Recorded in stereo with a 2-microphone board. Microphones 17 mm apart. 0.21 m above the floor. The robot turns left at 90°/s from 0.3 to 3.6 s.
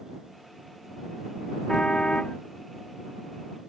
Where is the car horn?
130° left; by 2.4 s 70° left.